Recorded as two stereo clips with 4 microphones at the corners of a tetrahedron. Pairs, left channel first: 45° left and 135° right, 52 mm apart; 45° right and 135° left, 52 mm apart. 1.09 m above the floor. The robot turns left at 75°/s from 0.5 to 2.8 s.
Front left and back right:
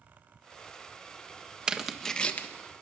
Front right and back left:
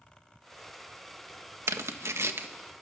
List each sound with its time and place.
1.7 s tearing paper: 155° left, 1.5 m; by 2.5 s 95° left, 1.5 m